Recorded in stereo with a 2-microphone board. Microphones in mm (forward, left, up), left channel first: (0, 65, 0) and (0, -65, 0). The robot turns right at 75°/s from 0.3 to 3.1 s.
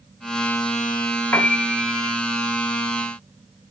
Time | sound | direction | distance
1.3 | a piano | 155° left | 2.0 m